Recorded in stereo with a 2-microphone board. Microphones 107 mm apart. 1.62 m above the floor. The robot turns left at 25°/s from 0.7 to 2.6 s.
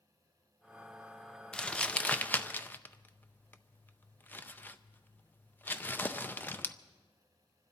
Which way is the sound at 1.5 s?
10° left (ahead or behind).